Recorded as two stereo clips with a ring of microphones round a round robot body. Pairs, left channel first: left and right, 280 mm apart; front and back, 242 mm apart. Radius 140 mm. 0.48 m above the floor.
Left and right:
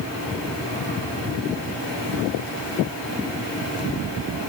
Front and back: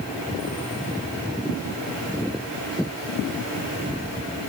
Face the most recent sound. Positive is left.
No sound to turn to.